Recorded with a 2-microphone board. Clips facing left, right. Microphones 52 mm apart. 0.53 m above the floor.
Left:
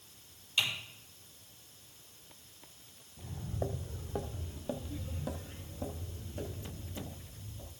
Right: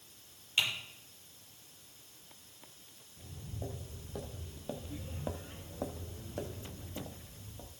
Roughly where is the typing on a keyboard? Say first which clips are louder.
Even; right.